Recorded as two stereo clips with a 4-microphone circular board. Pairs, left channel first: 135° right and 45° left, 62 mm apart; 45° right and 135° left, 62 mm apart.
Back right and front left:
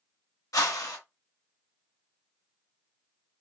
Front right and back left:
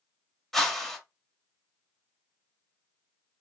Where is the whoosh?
130° right, 0.8 m.